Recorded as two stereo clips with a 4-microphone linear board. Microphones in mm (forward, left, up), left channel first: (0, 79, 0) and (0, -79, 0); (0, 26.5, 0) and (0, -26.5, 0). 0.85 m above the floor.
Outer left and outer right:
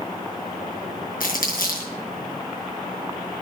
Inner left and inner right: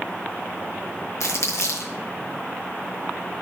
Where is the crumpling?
60° left (ahead or behind), 5.5 m.